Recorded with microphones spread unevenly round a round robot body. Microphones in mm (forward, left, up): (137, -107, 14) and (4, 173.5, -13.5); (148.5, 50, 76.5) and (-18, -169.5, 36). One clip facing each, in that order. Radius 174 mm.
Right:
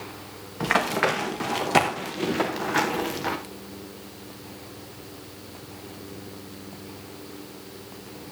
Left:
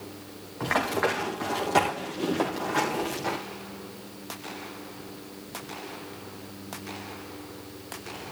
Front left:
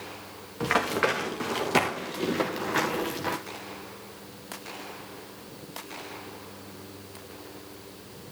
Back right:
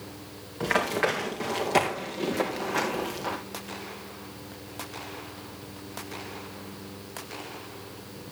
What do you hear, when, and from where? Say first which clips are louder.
0.6 s running footsteps: right 2 dB, even; 25° right, 5 m; by 3.4 s 5° right, 3 m